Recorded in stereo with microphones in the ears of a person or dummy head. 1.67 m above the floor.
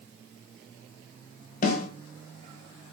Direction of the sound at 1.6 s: 50° left (ahead or behind).